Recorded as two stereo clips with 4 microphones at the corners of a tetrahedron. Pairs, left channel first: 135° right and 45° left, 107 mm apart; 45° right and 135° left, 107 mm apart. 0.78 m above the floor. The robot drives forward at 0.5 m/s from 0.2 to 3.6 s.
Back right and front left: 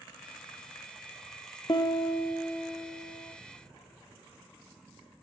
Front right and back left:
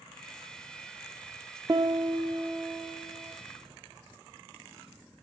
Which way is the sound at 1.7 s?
170° right.